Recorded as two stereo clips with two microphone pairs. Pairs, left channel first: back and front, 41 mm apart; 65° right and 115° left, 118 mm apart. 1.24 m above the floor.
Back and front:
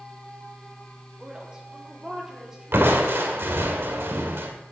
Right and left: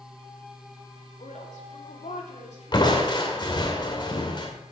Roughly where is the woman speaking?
Right.